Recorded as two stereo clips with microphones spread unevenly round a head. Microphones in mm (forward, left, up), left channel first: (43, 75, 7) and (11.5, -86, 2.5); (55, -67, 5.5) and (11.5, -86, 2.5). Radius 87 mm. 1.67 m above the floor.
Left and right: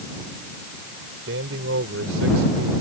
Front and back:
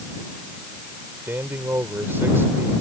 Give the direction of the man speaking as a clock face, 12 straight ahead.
4 o'clock.